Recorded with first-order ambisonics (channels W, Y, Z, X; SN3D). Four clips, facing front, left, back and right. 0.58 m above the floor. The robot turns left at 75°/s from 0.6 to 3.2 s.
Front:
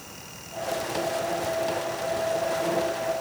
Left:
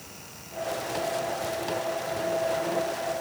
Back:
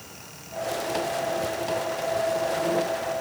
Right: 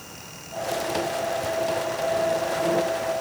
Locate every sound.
Only background noise.